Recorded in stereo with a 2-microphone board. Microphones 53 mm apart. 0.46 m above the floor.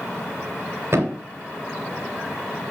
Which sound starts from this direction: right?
A thud, at 0.9 s.